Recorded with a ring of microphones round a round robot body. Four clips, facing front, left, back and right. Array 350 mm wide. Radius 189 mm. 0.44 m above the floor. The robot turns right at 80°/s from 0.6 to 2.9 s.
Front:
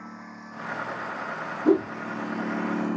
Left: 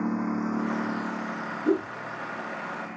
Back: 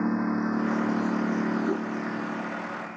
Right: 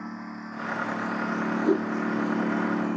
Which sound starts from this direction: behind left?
A lawn mower, at 0.0 s.